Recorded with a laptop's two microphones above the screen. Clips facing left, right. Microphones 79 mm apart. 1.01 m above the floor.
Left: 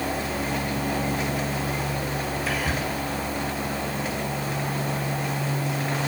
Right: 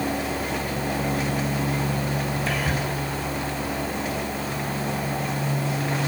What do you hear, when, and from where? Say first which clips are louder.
2.5 s whispering: even; centre (ahead or behind), 0.5 m